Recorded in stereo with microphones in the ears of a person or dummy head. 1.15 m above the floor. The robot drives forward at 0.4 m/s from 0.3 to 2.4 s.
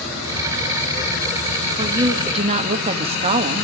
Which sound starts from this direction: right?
A woman speaking, at 1.8 s.